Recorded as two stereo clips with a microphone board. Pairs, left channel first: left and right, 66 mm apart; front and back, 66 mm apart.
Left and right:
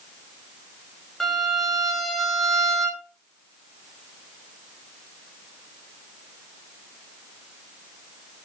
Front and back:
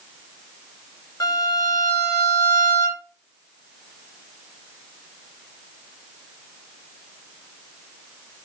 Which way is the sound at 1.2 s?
5° left.